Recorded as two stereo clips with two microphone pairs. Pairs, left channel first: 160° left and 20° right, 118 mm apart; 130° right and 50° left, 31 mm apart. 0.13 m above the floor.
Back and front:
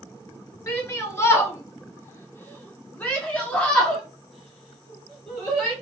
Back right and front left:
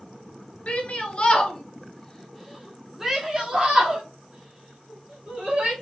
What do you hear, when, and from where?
0.7 s a shout: 140° right, 1.5 m; by 5.7 s 70° left, 2 m